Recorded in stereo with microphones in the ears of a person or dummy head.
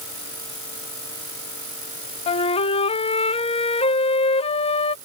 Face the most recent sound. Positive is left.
turn(degrees=30)  # may be behind; listen again after turning